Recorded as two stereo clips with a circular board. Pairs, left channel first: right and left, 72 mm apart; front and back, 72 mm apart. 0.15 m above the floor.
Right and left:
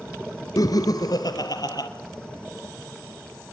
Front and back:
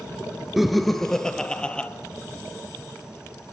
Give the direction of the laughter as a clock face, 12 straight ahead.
3 o'clock.